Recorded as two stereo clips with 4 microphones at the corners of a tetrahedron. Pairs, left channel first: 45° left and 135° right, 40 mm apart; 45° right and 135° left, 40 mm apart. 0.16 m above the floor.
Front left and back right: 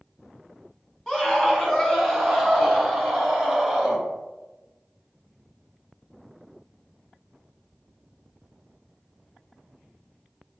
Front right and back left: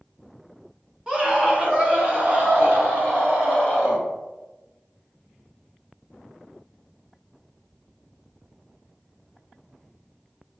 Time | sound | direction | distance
1.1 | a scream | 95° left | 1.1 m